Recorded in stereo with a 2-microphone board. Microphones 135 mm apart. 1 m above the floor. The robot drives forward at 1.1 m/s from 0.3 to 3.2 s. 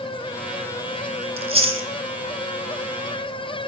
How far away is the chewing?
About 1.1 m.